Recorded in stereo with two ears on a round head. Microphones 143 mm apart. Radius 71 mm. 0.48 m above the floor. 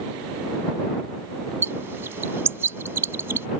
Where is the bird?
15° right (ahead or behind).